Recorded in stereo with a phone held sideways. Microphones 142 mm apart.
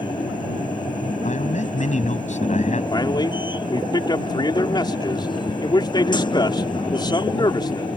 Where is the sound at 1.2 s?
55° left (ahead or behind).